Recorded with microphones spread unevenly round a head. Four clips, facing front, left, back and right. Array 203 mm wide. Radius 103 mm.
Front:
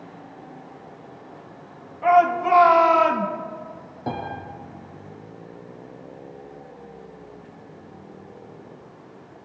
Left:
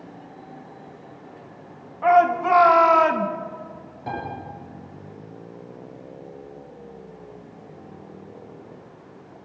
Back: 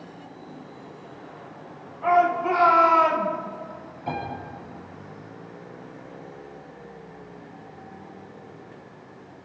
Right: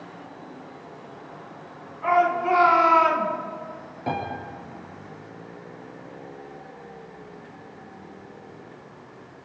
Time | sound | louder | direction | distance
2.0 | a shout | left 4 dB, front 3 dB | 40° left | 3.5 m
4.1 | a piano | right 2 dB, front 1 dB | 25° right | 8 m